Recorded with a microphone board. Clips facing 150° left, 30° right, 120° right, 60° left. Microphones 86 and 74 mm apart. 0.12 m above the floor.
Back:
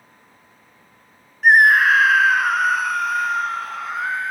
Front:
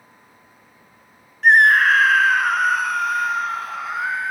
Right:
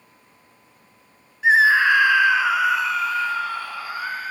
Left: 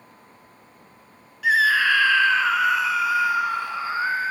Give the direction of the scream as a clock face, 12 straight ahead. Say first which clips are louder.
Even, right 3 dB; 4 o'clock.